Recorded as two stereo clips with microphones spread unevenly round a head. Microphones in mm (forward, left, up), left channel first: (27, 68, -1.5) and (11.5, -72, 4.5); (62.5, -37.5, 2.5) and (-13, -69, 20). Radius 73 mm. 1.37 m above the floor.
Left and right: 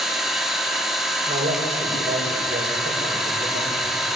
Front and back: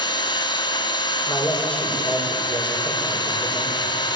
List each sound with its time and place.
0.0 s an engine running: 10° right, 3 m
1.3 s a man speaking: 50° right, 6.5 m